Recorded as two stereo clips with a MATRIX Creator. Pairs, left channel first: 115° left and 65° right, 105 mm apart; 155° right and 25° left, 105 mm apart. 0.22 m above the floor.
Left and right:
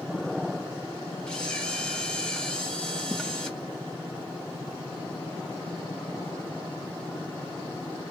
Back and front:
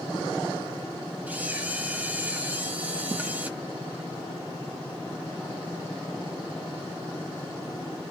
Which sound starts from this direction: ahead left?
A camera shutter, at 1.3 s.